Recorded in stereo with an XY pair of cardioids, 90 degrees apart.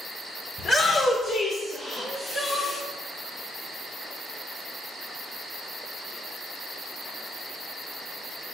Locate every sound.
0.6 s a shout: 65° left, 2 m; by 2.8 s 45° left, 4 m
2.0 s crying: 35° left, 1.9 m